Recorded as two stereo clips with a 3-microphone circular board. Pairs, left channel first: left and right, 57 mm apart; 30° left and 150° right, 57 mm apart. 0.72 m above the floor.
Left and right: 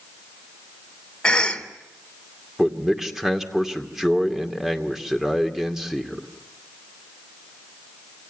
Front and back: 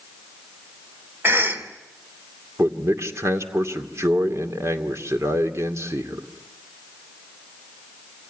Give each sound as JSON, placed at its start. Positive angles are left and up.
{"t": 1.2, "sound": "a cough", "azimuth_deg": 165, "distance_m": 3.0}
{"t": 2.6, "sound": "a man speaking", "azimuth_deg": -170, "distance_m": 2.5}